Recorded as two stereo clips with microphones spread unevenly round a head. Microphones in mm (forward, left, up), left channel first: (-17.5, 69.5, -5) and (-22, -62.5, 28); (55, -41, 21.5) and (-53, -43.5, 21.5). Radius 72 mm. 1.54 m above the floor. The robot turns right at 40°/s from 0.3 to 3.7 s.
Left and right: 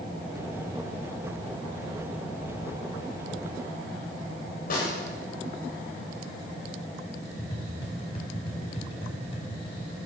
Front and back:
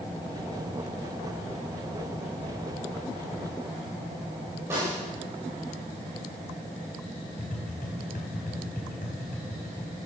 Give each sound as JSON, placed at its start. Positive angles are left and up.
{"t": 4.7, "sound": "a snare drum", "azimuth_deg": 110, "distance_m": 8.0}
{"t": 7.4, "sound": "tapping", "azimuth_deg": 30, "distance_m": 4.5}